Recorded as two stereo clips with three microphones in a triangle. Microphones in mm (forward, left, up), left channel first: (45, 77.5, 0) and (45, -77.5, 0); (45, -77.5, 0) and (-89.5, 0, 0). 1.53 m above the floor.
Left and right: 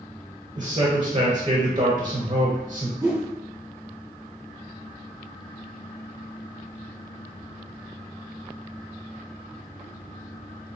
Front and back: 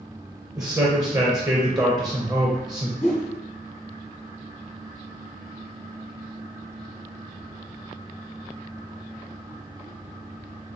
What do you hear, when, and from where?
0.6 s a man speaking: 145° right, 0.5 m
3.0 s a whoosh: 20° right, 0.8 m